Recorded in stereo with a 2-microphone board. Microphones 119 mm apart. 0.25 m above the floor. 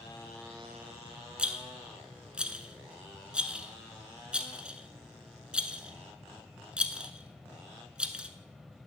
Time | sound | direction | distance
1.4 | a rattle | 10° right (ahead or behind) | 0.9 m